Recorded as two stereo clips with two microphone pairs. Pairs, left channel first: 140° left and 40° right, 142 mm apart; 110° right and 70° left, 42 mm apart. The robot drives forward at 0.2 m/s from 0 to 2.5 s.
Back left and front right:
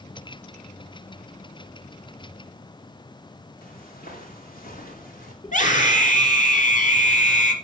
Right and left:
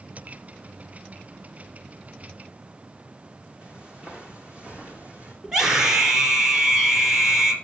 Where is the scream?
150° left, 4 m.